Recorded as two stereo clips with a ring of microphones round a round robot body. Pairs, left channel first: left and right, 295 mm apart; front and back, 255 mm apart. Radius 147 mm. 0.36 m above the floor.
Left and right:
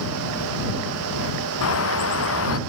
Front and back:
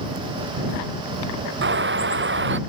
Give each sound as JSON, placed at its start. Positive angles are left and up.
{"t": 1.6, "sound": "a bird", "azimuth_deg": 135}